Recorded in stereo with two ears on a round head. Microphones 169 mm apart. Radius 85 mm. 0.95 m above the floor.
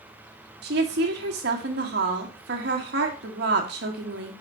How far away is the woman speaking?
About 1.5 m.